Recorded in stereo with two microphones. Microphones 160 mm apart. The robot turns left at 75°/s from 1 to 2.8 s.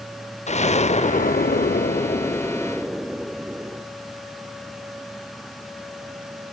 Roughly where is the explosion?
Behind left.